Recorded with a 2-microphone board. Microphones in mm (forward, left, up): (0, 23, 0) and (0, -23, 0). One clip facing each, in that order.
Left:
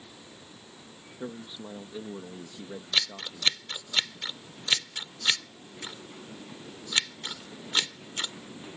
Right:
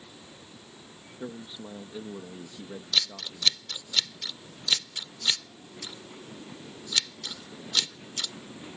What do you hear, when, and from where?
1.2 s a man speaking: 5° left (ahead or behind)
2.9 s scissors: 30° left (ahead or behind)